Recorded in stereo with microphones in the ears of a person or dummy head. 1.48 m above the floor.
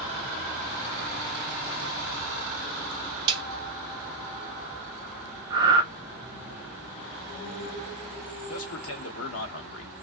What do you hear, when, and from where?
3.3 s a snare drum: 25° right (ahead or behind), 1.5 m
5.5 s breathing: 25° right (ahead or behind), 0.6 m
8.5 s a man speaking: 80° left, 1.2 m